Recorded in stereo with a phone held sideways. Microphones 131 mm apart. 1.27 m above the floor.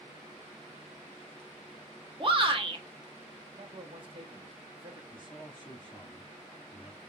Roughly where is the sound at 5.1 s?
Left.